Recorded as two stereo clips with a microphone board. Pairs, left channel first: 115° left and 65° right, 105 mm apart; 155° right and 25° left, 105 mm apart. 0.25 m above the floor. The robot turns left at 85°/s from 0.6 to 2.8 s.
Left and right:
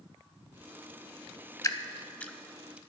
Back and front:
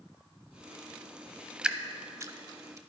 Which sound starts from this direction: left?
Dripping, at 1.6 s.